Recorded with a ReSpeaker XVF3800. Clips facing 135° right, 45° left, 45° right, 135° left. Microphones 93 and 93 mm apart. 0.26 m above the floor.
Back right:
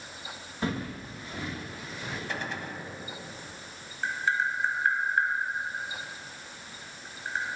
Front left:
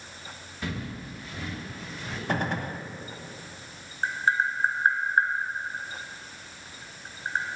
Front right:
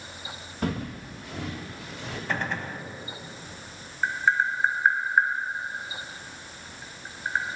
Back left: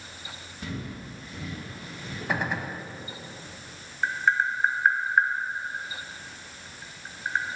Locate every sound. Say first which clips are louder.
0.6 s footsteps: back right 3 dB, front right 6 dB; 75° right, 1.9 m; by 2.2 s 55° right, 3.5 m
2.3 s a gunshot: front left 10 dB, back left 2 dB; 60° left, 0.6 m
4.0 s tapping: front left 3 dB, even; 40° left, 1.3 m